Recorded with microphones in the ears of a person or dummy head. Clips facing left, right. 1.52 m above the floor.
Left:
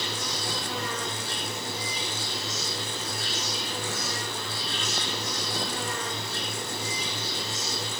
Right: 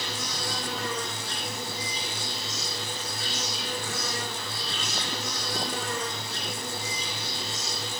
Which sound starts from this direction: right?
An insect, at 0.0 s.